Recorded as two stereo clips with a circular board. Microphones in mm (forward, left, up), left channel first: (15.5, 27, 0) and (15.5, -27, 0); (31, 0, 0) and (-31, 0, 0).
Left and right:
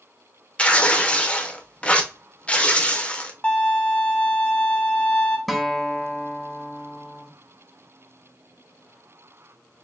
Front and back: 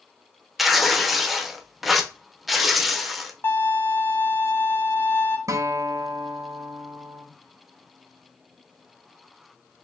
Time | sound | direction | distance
0.6 | tearing paper | 95° left | 0.5 m
3.4 | a violin | 35° left | 0.7 m
5.5 | a guitar | straight behind | 0.6 m